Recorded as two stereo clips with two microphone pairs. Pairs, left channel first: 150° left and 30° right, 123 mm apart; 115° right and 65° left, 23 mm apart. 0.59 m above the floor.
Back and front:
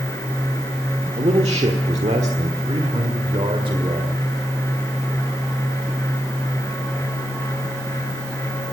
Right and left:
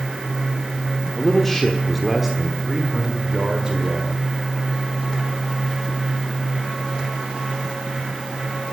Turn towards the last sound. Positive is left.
turn(degrees=15)